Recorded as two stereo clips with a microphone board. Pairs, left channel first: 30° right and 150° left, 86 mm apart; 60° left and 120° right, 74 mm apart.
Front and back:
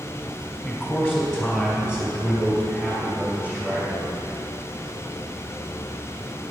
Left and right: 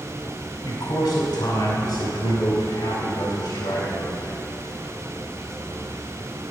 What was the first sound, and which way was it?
A man speaking, 55° left.